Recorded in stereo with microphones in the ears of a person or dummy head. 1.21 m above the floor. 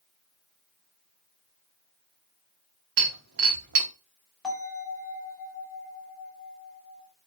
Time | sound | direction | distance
3.0 | breaking glass | 65° right (ahead or behind) | 0.9 m
4.4 | a bell | 5° left (ahead or behind) | 1.8 m